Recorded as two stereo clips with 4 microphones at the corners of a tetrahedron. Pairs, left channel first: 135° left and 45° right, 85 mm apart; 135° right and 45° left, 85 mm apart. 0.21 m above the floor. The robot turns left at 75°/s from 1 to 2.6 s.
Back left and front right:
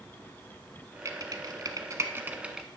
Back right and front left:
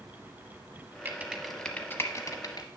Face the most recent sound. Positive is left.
turn(degrees=-125)